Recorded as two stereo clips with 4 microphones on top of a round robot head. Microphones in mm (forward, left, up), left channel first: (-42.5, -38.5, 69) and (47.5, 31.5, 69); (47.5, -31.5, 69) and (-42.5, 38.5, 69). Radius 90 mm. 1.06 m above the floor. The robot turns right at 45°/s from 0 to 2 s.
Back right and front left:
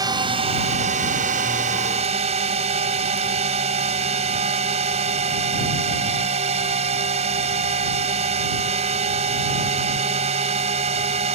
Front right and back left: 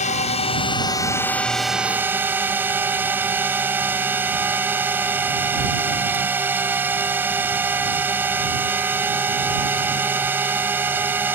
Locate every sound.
0.0 s a drone: 20° right; by 11.3 s 70° left